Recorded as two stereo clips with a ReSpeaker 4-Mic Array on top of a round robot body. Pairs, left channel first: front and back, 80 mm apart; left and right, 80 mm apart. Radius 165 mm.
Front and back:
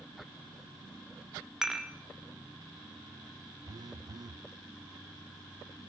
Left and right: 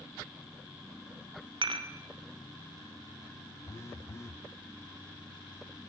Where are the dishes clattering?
95° right, 1.8 m.